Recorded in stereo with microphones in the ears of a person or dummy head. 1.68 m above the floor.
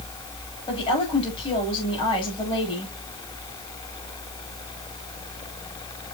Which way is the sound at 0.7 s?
25° left (ahead or behind).